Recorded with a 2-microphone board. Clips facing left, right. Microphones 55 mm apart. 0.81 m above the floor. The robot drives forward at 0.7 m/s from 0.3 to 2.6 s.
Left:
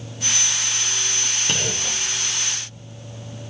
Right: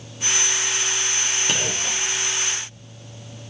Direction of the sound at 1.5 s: 5° right (ahead or behind).